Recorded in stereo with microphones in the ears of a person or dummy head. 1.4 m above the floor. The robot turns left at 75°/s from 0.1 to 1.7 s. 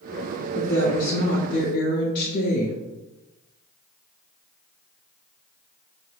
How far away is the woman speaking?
About 0.7 m.